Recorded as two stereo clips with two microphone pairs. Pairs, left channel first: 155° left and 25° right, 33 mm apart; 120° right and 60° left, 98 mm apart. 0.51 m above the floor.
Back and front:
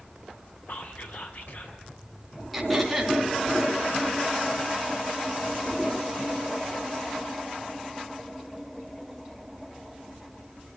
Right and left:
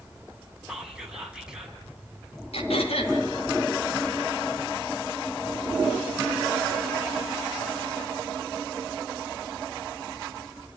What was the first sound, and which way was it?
Whispering, 140° left.